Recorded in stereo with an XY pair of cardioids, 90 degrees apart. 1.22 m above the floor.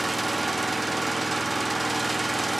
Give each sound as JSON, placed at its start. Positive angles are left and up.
{"t": 0.0, "sound": "an engine running", "azimuth_deg": -20, "distance_m": 1.2}